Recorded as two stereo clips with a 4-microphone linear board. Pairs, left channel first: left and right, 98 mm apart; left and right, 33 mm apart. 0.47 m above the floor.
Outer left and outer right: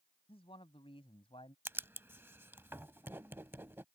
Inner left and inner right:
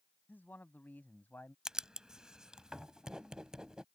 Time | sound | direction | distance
0.3 | a man speaking | 75° left (ahead or behind) | ?
1.6 | writing | 25° right (ahead or behind) | ?